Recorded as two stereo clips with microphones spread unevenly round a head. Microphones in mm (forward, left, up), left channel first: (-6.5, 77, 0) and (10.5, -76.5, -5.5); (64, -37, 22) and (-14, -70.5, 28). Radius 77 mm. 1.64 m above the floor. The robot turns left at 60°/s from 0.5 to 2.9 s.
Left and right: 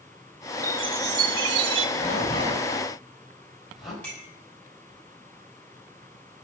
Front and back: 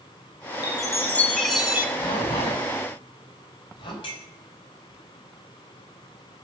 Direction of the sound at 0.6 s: 15° right.